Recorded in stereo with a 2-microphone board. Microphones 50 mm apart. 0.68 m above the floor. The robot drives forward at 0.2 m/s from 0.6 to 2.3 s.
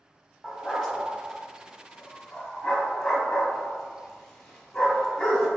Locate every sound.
0.4 s a dog barking: 10° left (ahead or behind), 1.3 m